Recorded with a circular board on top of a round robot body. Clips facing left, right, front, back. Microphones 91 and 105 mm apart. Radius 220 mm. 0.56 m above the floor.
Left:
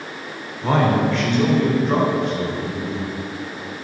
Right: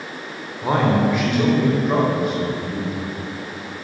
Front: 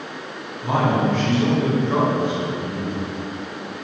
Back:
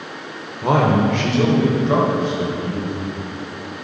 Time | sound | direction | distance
0.6 | a man speaking | 170° right | 3.5 m